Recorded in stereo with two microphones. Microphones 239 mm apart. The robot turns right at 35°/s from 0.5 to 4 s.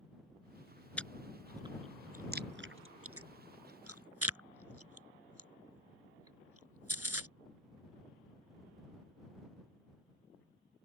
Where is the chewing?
5° left (ahead or behind); by 7.3 s 80° right.